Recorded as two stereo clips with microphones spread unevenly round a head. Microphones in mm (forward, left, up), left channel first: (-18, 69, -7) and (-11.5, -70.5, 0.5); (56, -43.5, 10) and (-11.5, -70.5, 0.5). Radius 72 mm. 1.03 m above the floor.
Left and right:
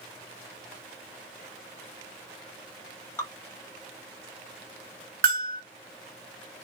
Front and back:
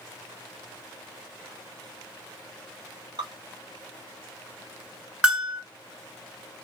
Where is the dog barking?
I don't hear a dog barking.